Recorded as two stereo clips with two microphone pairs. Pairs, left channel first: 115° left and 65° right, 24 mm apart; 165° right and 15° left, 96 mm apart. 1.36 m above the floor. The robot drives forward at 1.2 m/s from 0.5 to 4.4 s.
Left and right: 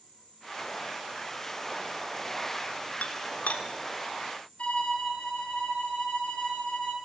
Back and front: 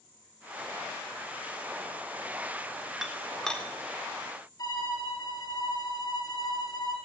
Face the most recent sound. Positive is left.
turn(degrees=150)